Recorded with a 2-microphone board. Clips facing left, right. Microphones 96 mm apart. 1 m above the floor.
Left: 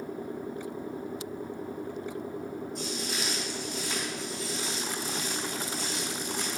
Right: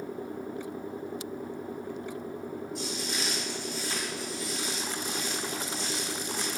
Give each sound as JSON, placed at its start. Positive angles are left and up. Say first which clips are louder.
{"t": 2.8, "sound": "footsteps", "louder": "even", "side_deg": -5, "distance_m": 1.8}